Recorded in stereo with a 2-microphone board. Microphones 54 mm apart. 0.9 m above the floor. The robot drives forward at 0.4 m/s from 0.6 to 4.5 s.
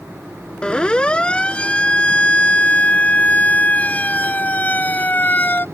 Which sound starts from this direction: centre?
A siren, at 0.6 s.